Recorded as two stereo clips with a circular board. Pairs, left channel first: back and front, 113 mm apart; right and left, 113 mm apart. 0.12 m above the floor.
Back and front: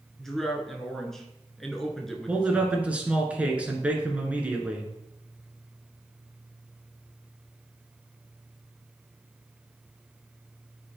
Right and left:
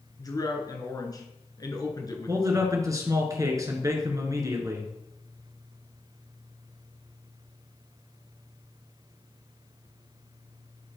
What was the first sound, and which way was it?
A man speaking, 95° right.